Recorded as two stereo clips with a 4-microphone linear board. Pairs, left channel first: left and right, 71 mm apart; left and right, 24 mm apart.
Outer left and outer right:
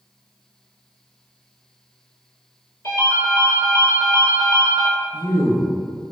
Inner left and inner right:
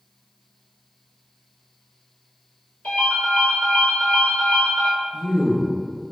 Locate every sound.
2.8 s a ringtone: 75° left (ahead or behind), 1.3 m
5.1 s a man speaking: 30° right (ahead or behind), 1.1 m